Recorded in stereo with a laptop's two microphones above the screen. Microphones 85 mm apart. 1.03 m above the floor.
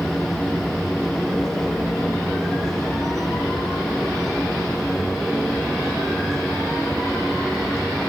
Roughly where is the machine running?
Centre.